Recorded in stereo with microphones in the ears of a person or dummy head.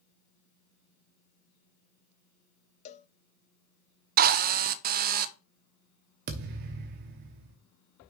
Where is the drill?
45° right (ahead or behind), 0.6 m.